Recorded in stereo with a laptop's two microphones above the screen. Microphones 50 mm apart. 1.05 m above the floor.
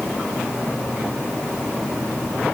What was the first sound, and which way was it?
Only background noise.